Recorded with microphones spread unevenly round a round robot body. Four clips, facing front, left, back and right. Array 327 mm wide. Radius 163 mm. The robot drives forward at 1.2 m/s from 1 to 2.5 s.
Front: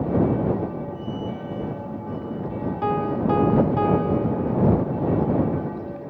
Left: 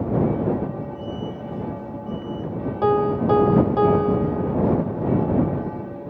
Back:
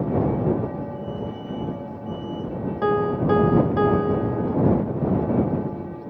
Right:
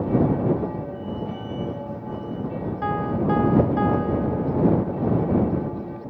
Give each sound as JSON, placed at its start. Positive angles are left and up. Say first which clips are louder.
{"t": 2.8, "sound": "a piano", "louder": "left 6 dB, back 2 dB", "azimuth_deg": 130}